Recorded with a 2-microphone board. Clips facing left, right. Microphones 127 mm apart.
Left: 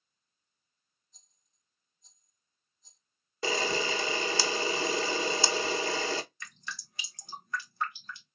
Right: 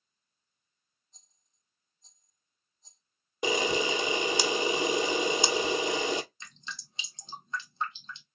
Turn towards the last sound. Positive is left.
turn(degrees=-20)  # may be behind; listen again after turning